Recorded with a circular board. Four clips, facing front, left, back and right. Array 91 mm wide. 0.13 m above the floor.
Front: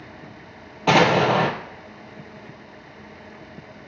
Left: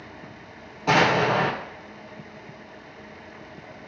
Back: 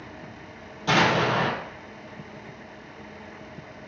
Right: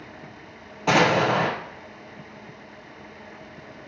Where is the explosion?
10° right, 0.6 m.